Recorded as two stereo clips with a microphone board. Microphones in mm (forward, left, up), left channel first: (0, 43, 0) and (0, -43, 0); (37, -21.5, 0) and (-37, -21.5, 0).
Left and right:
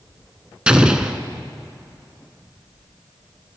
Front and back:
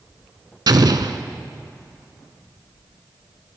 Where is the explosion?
170° right, 0.6 m.